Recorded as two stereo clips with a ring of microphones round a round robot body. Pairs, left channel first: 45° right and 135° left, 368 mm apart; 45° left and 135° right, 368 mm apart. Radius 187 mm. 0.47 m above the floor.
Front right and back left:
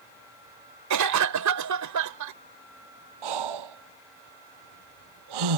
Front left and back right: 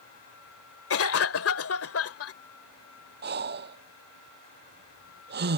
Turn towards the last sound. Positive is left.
turn(degrees=160)